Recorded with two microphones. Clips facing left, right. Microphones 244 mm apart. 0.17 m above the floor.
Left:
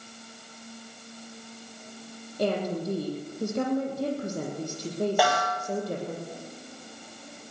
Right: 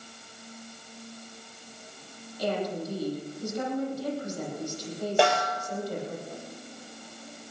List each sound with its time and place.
2.4 s a woman speaking: 60° left (ahead or behind), 7.5 m
5.2 s a snare drum: 30° right (ahead or behind), 3.5 m